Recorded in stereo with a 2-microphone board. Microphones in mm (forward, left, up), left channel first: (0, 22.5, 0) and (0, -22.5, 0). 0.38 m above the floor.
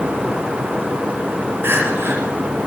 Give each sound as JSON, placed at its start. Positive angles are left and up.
{"t": 1.6, "sound": "crying", "side_deg": -55, "distance_m": 5.5}